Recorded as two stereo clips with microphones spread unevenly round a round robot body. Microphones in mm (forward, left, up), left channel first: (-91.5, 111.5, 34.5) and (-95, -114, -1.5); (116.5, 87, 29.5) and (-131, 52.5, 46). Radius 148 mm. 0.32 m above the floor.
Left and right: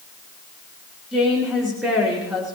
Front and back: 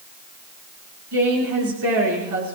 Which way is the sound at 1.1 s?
175° right.